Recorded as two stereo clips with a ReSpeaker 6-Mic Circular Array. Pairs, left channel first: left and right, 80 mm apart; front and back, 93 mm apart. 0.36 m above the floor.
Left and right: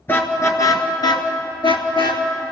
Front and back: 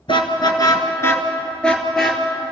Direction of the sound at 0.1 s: 25° left.